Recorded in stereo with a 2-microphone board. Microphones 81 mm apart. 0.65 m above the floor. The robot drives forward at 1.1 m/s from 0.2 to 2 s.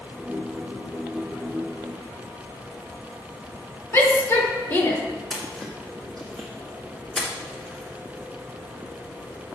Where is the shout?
35° left (ahead or behind), 1.5 m.